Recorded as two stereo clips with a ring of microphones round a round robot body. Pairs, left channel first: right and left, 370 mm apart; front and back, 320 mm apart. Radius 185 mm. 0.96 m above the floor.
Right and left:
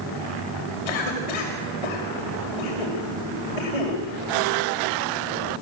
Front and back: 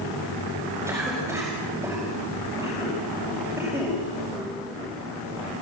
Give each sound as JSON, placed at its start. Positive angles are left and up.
{"t": 0.9, "sound": "a cough", "azimuth_deg": -95, "distance_m": 5.5}